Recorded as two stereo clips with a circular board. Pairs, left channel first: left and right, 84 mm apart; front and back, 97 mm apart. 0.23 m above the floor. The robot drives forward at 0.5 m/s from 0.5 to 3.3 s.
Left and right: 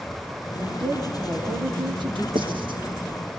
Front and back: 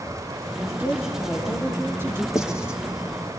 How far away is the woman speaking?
About 4.5 m.